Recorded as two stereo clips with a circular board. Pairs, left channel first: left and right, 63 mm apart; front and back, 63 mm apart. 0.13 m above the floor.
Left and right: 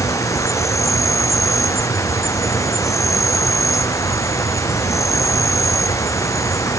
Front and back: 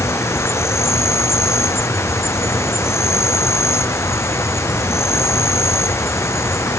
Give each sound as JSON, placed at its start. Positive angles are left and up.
{"t": 0.0, "sound": "an insect", "azimuth_deg": 50}